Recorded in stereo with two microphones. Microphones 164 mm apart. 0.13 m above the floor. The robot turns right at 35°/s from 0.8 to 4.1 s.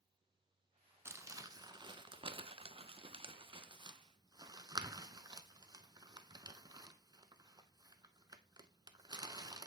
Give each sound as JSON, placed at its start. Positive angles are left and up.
{"t": 1.1, "sound": "crumpling", "side_deg": -15, "distance_m": 0.5}